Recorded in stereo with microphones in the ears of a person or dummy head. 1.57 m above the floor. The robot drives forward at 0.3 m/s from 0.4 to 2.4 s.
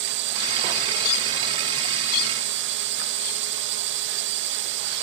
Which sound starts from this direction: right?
A drone, at 0.0 s.